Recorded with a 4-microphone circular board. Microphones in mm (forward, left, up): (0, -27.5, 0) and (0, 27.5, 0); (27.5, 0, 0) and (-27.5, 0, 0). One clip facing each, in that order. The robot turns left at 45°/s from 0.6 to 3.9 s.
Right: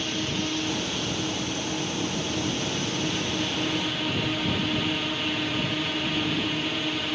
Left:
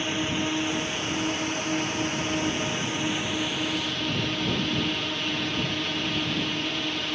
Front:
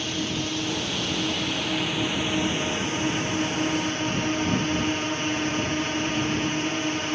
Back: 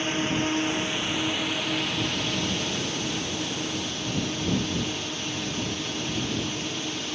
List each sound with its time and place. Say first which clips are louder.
0.0 s a drone: left 2 dB, back 3 dB; 140° left; by 7.1 s 10° right